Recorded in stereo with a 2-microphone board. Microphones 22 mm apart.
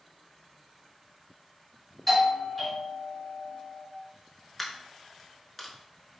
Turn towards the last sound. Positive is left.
turn(degrees=0)  # may be behind; listen again after turning